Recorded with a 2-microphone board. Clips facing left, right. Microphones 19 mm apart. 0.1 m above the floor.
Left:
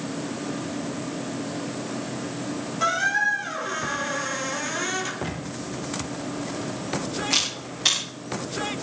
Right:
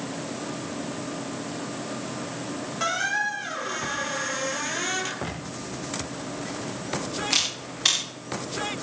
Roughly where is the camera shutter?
Centre.